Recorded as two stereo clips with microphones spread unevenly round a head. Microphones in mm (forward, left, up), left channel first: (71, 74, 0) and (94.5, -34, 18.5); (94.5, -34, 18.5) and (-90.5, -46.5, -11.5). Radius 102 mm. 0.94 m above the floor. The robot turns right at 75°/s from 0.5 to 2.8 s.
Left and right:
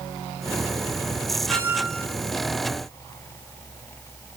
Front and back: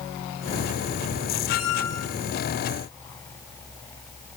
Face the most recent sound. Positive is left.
turn(degrees=80)